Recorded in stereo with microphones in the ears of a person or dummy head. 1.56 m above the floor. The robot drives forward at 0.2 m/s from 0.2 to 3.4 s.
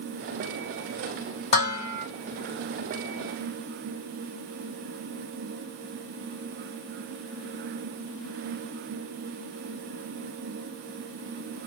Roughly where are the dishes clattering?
Left.